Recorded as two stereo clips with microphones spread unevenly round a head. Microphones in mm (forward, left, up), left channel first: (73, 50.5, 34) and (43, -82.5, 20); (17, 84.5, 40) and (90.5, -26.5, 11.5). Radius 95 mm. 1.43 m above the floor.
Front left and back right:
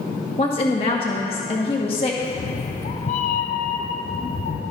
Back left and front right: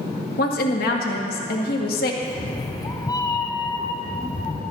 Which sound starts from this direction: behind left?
A woman speaking, at 0.4 s.